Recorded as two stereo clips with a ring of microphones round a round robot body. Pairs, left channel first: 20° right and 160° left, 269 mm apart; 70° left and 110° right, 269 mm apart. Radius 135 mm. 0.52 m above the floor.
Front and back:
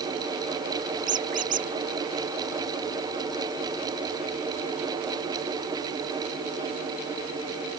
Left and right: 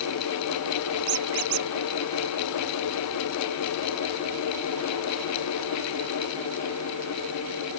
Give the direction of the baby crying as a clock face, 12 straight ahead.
I don't hear a baby crying.